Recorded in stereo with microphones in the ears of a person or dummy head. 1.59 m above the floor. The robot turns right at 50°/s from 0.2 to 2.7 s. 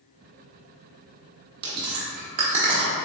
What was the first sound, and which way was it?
Chewing, 60° right (ahead or behind).